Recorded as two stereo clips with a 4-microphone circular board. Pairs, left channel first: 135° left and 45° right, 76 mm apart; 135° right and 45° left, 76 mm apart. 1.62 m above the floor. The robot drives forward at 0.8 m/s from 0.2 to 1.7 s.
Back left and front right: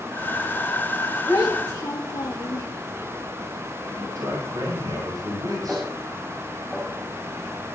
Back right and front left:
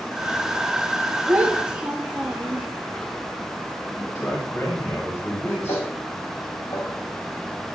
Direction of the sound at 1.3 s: 110° left.